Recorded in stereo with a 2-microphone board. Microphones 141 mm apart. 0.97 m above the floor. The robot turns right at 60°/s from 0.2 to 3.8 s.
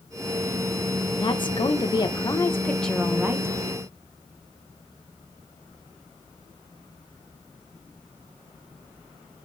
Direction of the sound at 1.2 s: 75° left.